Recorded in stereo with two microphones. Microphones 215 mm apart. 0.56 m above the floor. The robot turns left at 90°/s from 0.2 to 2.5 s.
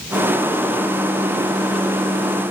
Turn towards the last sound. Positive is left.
No sound to turn to.